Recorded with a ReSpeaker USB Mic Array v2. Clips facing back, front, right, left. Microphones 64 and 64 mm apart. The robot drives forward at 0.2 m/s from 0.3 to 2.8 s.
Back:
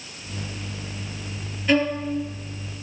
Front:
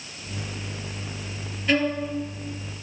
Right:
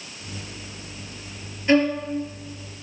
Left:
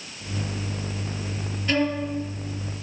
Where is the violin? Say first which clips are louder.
Back 2 dB, right 5 dB; 100° right, 1.8 m; by 2.0 s 105° right, 1.8 m.